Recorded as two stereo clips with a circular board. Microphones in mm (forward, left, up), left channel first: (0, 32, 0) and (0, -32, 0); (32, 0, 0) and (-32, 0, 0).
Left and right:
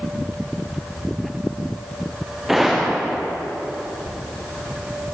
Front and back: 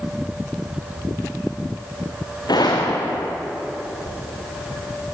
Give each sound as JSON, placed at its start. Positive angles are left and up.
{"t": 2.5, "sound": "a gunshot", "azimuth_deg": -5, "distance_m": 5.0}